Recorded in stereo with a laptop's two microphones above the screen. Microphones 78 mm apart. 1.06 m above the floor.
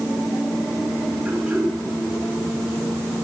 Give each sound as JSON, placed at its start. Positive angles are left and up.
{"t": 1.2, "sound": "throat clearing", "side_deg": -20, "distance_m": 8.0}